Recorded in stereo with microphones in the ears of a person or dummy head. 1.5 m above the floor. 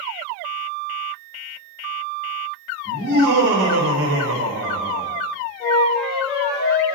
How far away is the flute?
About 0.7 m.